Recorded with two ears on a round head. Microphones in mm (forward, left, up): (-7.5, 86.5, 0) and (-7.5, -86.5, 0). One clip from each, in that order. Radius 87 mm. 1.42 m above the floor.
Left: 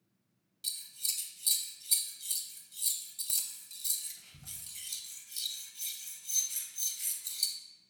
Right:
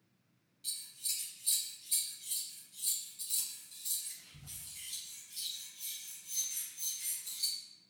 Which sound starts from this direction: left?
Scissors, at 0.6 s.